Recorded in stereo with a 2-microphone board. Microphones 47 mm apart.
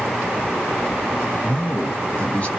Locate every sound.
1.4 s a man speaking: 25° left (ahead or behind), 1.3 m